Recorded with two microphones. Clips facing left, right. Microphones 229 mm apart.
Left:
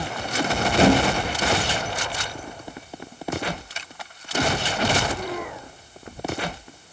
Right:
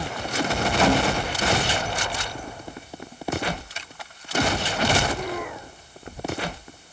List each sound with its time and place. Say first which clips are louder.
0.8 s a thud: left 4 dB; 30° left (ahead or behind), 2.0 m